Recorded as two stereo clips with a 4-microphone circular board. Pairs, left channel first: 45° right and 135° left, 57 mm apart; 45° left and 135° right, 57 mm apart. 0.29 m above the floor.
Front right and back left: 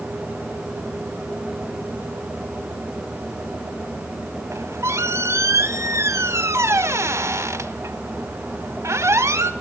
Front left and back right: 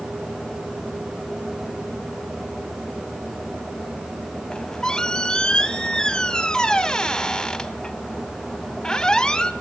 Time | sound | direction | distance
4.5 | a squeak | 120° left | 0.7 m